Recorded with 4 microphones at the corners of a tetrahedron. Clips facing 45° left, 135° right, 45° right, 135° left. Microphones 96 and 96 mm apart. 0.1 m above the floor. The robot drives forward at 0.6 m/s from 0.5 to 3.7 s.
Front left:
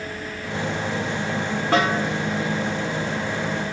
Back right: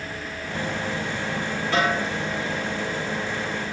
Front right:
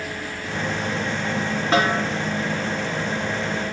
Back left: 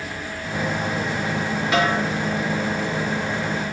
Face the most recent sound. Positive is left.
turn(degrees=10)